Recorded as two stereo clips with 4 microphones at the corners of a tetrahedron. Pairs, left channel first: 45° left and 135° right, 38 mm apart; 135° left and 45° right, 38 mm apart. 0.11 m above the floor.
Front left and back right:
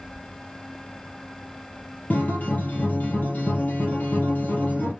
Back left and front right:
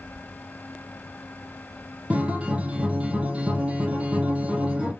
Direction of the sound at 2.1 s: 10° left.